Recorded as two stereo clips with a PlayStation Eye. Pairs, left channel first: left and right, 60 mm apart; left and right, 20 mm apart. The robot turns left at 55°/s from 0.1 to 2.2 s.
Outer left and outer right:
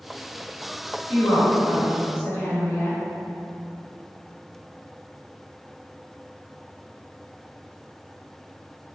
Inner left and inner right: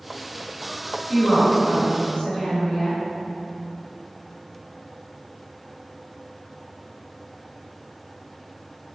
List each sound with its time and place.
1.1 s a woman speaking: 115° left, 2.0 m; by 3.0 s 55° left, 2.0 m